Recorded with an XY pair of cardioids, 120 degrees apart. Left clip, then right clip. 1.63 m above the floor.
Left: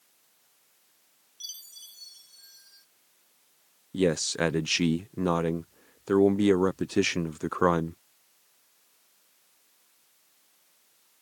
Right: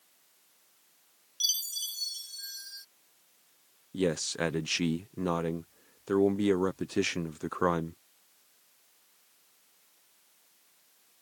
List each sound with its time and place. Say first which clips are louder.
1.4 s a chime: right 12 dB; 60° right
3.9 s a man speaking: left 4 dB; 25° left